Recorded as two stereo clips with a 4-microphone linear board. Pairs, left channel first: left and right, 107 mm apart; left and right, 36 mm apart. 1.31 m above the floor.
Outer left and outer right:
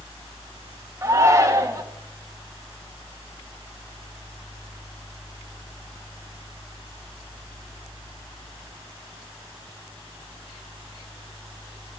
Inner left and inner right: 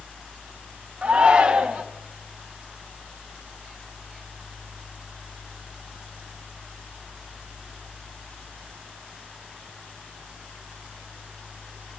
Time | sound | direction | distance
1.0 | a shout | 30° right (ahead or behind) | 1.6 m